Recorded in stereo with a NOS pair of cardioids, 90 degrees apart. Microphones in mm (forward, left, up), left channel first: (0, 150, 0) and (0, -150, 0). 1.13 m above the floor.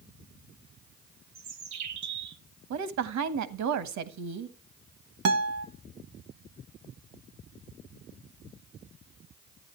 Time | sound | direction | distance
1.4 | a bird | 65° right | 1.3 m
2.7 | a woman speaking | 70° right | 1.4 m
5.2 | a guitar | 55° right | 1.2 m